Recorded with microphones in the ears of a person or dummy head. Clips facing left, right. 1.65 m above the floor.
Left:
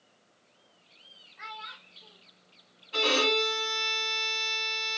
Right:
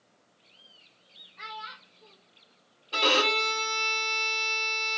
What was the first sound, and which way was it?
A child speaking, 50° right (ahead or behind).